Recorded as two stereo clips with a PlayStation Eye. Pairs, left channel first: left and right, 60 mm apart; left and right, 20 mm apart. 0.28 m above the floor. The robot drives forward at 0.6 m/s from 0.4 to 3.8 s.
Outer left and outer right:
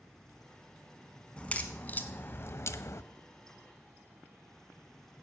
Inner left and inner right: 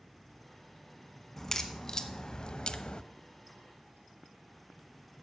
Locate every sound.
1.4 s a crack: 20° left (ahead or behind), 1.0 m; by 3.0 s 50° left (ahead or behind), 0.5 m